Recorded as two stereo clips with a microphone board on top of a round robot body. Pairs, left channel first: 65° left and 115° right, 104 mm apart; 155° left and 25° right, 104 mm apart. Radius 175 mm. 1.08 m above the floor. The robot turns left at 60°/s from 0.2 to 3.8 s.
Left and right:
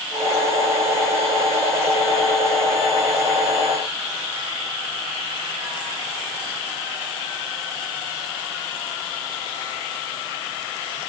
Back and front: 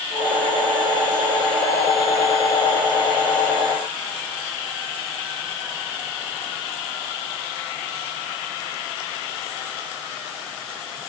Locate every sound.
Only background noise.